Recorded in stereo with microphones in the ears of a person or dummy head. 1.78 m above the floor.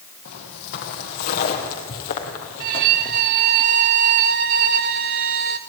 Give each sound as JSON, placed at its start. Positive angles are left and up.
{"t": 0.2, "sound": "footsteps", "side_deg": 60, "distance_m": 3.5}
{"t": 2.6, "sound": "a violin", "side_deg": -35, "distance_m": 0.6}